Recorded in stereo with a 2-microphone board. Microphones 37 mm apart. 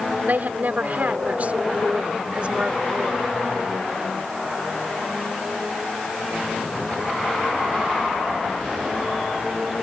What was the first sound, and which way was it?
A woman speaking, 55° right (ahead or behind).